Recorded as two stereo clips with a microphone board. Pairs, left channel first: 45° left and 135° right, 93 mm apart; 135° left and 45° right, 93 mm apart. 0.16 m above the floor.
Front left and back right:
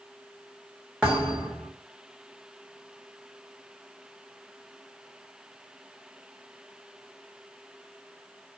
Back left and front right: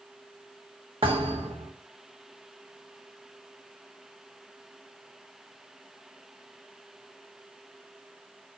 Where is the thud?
55° right, 1.0 m.